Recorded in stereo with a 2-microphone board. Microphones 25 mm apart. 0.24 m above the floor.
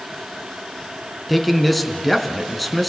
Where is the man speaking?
Centre (ahead or behind), 2.0 m.